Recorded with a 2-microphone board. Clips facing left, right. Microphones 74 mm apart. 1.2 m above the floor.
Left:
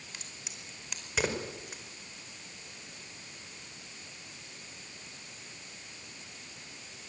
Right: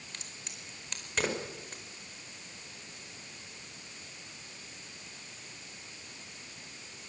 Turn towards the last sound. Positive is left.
turn(degrees=5)  # may be behind; listen again after turning